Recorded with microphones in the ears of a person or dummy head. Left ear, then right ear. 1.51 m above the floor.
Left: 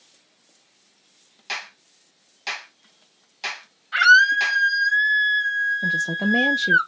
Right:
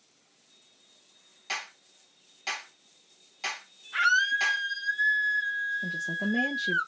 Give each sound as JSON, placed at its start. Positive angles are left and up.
{"t": 1.5, "sound": "a clap", "side_deg": 10, "distance_m": 1.4}
{"t": 3.9, "sound": "a scream", "side_deg": 60, "distance_m": 1.4}
{"t": 5.8, "sound": "a woman speaking", "side_deg": 50, "distance_m": 0.6}